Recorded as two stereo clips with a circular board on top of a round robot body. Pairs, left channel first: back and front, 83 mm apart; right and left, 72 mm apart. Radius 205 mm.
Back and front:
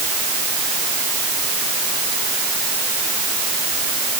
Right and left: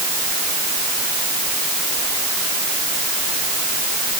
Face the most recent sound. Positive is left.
No sound to turn to.